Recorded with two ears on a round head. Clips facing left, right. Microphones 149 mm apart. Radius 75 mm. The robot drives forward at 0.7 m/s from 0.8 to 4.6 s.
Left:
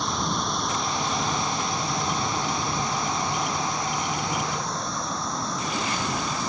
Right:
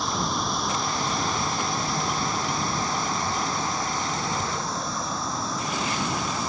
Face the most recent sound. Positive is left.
turn(degrees=0)  # may be behind; listen again after turning